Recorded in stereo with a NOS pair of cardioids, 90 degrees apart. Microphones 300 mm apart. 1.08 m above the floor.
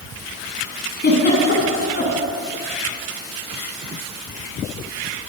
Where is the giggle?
35° left, 9.5 m.